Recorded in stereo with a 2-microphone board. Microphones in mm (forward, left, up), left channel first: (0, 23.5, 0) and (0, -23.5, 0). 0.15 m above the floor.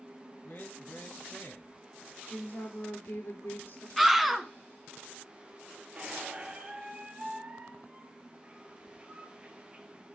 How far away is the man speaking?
About 3 m.